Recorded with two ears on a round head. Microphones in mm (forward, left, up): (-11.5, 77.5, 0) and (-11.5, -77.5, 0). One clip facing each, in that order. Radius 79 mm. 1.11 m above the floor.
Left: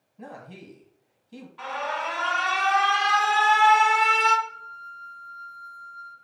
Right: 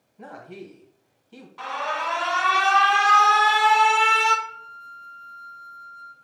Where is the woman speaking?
10° left (ahead or behind), 1.3 m.